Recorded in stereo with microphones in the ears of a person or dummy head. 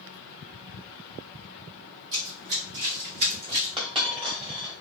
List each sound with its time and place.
2.1 s running footsteps: 40° right (ahead or behind), 1.9 m; by 3.7 s 55° right (ahead or behind), 2 m
3.8 s a dropped coin: 25° right (ahead or behind), 1.2 m